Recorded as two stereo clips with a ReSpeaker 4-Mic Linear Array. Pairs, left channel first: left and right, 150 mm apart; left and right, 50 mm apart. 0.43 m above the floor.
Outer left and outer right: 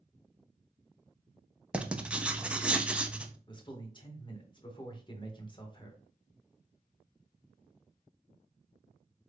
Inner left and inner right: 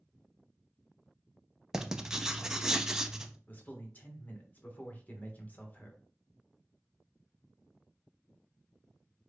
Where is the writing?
10° right (ahead or behind), 0.5 m.